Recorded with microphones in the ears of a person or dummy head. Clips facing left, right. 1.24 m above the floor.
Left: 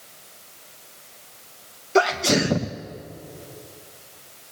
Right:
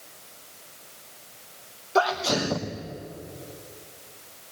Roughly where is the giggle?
I don't hear a giggle.